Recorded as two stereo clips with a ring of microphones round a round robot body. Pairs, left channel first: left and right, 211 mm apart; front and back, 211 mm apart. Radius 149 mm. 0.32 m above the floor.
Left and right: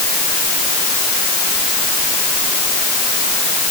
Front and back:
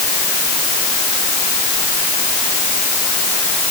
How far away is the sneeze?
I don't hear a sneeze.